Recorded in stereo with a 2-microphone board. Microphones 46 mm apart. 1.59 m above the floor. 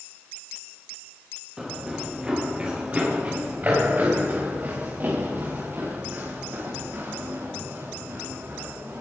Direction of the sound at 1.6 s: 15° right (ahead or behind).